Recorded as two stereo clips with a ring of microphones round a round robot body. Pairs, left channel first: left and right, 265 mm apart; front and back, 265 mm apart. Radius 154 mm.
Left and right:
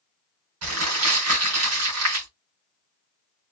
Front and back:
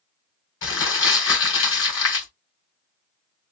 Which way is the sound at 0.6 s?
45° right.